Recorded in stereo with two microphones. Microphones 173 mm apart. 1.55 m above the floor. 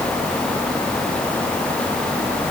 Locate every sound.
Only background noise.